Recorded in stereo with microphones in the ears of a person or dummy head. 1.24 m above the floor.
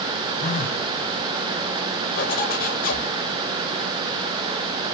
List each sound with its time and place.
0.4 s a phone buzzing: 40° left (ahead or behind), 0.7 m
2.2 s a zipper: 45° left (ahead or behind), 0.9 m